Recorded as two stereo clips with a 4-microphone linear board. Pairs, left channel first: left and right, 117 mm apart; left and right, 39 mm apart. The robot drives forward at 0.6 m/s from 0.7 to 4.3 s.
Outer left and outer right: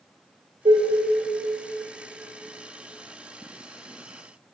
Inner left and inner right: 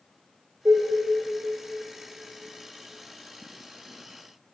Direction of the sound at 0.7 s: 60° right (ahead or behind).